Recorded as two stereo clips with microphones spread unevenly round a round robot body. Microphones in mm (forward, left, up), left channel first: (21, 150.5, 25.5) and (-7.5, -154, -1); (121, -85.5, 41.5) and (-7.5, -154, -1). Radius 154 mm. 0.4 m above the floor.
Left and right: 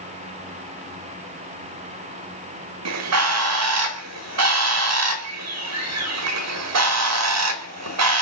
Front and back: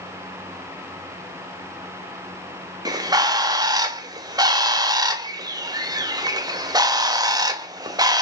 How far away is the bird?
About 1.2 m.